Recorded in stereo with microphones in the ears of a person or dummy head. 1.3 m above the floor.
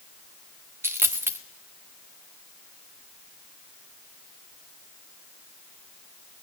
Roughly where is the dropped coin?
Centre.